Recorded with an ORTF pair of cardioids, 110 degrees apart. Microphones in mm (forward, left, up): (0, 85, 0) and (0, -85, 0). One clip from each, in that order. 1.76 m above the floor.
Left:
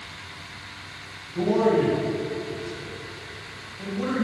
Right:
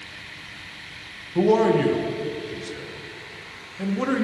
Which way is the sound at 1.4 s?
50° right.